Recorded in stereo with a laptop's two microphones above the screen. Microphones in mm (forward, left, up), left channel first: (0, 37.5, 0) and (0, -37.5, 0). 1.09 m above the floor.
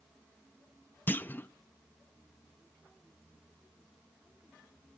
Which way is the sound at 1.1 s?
25° left (ahead or behind).